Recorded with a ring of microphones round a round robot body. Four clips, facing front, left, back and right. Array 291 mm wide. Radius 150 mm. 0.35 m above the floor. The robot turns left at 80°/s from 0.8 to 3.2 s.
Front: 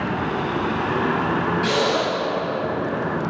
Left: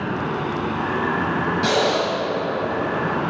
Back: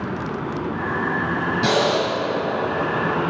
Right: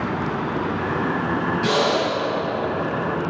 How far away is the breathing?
About 2 m.